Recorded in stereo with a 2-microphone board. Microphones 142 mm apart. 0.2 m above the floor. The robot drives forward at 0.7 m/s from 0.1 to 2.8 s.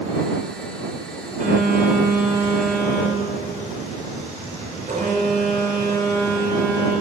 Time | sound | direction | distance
1.4 | a phone buzzing | 60° right (ahead or behind) | 3.5 m